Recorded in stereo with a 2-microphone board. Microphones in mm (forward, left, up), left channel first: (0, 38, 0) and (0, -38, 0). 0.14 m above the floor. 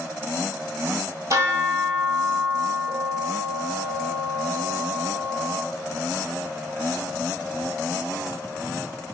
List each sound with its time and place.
1.3 s a bell: 50° right (ahead or behind), 1.0 m